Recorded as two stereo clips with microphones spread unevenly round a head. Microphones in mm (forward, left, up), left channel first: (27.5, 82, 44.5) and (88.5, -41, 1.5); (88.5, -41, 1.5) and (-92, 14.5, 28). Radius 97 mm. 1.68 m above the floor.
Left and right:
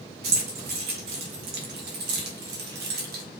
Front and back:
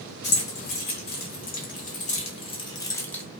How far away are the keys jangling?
About 2 m.